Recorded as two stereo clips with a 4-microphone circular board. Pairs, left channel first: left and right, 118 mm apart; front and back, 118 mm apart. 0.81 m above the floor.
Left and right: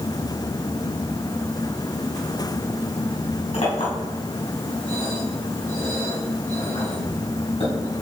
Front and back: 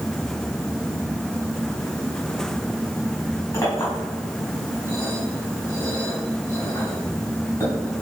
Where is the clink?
65° left, 3.5 m.